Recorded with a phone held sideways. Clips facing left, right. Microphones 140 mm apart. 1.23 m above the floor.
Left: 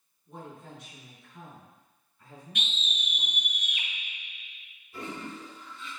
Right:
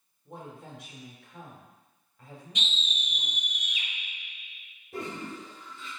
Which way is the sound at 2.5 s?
50° left (ahead or behind).